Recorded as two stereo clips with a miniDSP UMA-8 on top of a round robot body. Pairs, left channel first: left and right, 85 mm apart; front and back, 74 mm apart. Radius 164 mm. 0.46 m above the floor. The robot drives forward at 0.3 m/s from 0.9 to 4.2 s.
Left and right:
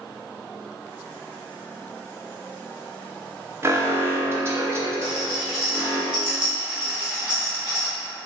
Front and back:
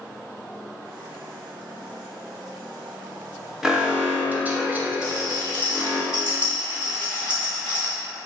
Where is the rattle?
170° right, 1.7 m.